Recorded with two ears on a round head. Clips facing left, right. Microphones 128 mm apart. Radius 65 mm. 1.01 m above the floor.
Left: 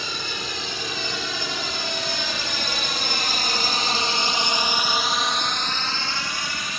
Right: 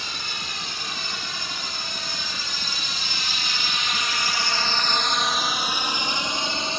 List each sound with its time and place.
0.0 s a drone: 75° left (ahead or behind); by 6.8 s 25° right (ahead or behind)